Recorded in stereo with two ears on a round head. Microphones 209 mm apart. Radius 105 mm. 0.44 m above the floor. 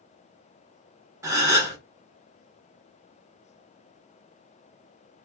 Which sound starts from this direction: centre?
A gasp, at 1.2 s.